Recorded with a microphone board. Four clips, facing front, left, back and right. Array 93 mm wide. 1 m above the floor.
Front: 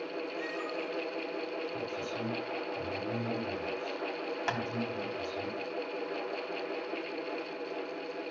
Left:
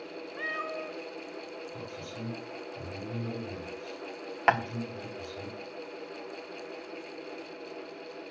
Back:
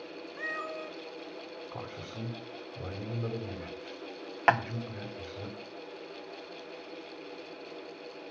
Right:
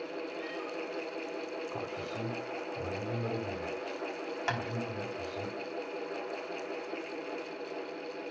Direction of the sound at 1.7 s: 130° right.